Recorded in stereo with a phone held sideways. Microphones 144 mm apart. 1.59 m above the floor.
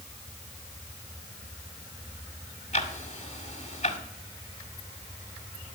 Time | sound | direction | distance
2.7 | ticking | 50° left (ahead or behind) | 2.0 m